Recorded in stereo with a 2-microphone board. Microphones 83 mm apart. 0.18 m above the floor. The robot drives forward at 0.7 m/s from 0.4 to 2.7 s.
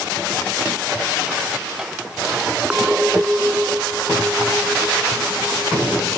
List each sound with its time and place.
2.7 s a clink: 10° right (ahead or behind)